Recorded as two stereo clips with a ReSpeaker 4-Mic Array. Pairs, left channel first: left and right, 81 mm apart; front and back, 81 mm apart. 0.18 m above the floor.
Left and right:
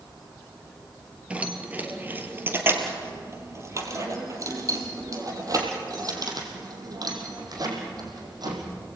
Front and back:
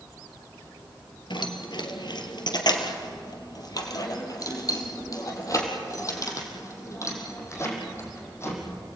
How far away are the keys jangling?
About 2.5 m.